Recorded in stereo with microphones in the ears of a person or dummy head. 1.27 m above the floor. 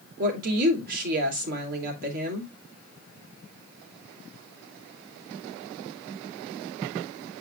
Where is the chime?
No chime in this recording.